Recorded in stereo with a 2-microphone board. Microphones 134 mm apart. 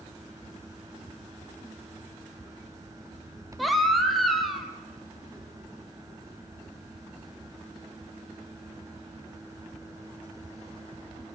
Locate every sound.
3.6 s a baby crying: centre (ahead or behind), 3 m